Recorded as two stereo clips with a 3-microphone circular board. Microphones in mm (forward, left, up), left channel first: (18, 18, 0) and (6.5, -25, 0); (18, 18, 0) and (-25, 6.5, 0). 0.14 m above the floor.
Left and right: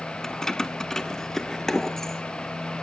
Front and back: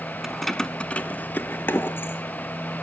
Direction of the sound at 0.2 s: 135° left.